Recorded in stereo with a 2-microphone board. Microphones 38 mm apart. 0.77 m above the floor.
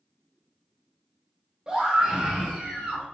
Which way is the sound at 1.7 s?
25° right (ahead or behind).